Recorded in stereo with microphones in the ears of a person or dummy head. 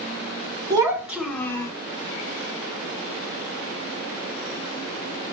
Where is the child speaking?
25° right (ahead or behind), 0.8 m; by 1.7 s 15° left (ahead or behind), 0.8 m.